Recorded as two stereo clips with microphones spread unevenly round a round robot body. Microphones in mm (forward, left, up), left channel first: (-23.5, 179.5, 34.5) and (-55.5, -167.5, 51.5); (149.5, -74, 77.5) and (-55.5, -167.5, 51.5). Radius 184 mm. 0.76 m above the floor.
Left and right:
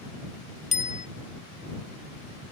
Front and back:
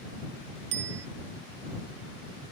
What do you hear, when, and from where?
0.7 s a bicycle bell: 155° left